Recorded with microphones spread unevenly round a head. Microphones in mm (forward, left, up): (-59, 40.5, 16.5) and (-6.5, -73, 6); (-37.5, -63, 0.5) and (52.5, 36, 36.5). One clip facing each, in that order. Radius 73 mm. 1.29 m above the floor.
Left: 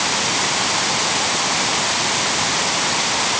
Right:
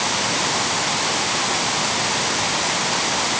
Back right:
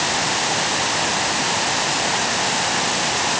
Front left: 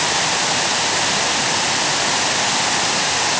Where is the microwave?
No microwave in this recording.